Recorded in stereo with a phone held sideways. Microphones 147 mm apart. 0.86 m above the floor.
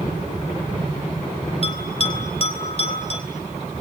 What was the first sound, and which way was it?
A bell, 45° left (ahead or behind).